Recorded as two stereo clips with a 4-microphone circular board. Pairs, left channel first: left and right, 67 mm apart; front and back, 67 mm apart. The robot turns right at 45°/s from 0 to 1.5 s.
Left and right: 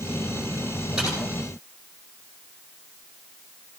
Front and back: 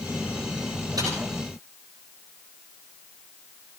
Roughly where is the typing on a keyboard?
Behind.